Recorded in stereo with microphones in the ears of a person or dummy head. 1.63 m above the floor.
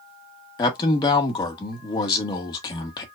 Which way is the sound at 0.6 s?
25° left (ahead or behind).